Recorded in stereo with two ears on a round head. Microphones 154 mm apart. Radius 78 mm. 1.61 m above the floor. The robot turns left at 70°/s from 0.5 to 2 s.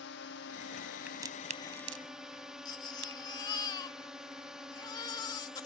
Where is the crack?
5° right (ahead or behind); by 3.2 s 70° right (ahead or behind).